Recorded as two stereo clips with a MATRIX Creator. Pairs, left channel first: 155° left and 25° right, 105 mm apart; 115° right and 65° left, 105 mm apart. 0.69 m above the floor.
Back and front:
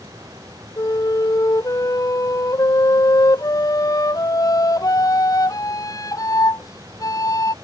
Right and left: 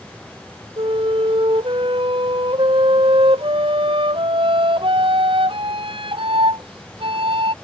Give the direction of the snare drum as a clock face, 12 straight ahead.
No snare drum in this recording.